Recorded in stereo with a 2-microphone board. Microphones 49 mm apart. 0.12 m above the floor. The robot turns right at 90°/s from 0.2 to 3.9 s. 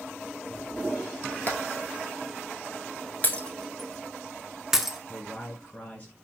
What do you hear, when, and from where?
1.5 s hammering: 30° left (ahead or behind), 1.3 m; by 1.6 s 25° left (ahead or behind), 1.3 m
3.2 s breaking glass: 30° left (ahead or behind), 0.6 m; by 5.0 s 10° right (ahead or behind), 0.6 m
5.1 s a man speaking: 30° left (ahead or behind), 1.5 m